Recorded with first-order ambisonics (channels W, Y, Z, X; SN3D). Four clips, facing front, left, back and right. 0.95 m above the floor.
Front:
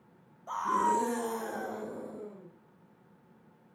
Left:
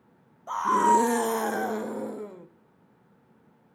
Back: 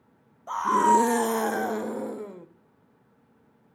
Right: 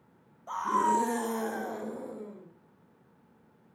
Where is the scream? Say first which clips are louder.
Left 6 dB, back 8 dB; 140° left, 0.8 m; by 2.5 s 150° left, 1.9 m.